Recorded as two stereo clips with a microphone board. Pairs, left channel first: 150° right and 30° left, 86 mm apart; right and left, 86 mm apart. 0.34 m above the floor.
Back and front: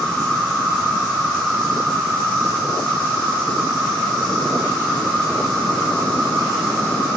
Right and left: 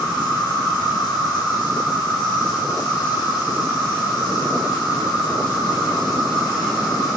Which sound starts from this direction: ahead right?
An insect, at 0.0 s.